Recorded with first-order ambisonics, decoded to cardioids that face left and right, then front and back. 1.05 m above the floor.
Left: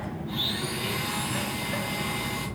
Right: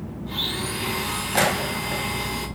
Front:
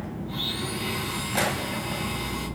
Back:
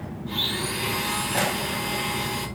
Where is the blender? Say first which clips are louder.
Right 3 dB, back 4 dB; 145° right, 3.5 m.